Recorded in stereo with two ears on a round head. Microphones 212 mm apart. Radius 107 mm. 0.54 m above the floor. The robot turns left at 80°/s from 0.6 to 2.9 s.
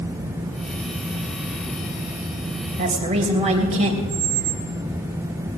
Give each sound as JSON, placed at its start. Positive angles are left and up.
{"t": 2.8, "sound": "a woman speaking", "side_deg": -40, "distance_m": 3.0}
{"t": 4.1, "sound": "a squeak", "side_deg": -25, "distance_m": 5.0}